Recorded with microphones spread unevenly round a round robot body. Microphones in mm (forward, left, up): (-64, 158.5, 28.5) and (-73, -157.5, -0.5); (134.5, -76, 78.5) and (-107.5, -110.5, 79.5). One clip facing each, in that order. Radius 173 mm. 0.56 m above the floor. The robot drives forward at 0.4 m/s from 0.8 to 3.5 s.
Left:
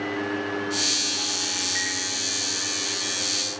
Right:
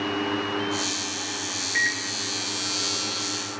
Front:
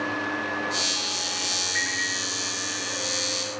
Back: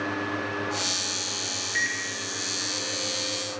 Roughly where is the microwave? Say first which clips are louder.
Even, front 2 dB; behind right.